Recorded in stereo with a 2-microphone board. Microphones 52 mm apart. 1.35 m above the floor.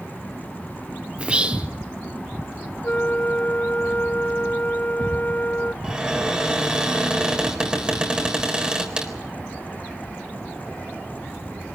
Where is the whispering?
20° right (ahead or behind), 0.6 m.